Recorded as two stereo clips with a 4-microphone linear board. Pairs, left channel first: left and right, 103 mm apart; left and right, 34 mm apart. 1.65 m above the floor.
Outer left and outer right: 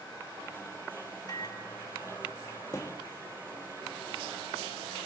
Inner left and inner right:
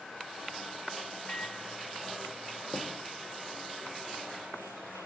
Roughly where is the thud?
Left.